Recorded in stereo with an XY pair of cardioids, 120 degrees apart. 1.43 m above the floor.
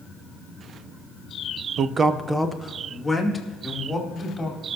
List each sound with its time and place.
1.8 s a man speaking: 55° right, 0.7 m; by 4.7 s 5° left, 4.5 m